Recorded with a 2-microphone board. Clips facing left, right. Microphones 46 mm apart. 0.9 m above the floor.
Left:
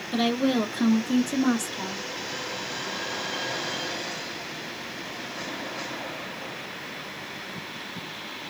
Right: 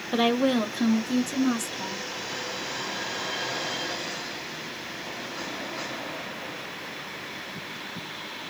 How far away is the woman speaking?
About 0.6 m.